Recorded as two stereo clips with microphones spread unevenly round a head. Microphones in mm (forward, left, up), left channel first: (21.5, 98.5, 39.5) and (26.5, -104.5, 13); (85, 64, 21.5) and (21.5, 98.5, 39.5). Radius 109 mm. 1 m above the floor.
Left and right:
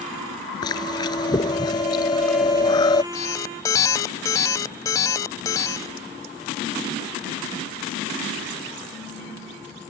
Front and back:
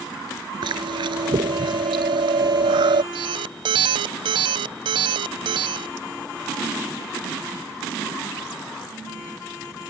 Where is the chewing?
160° left.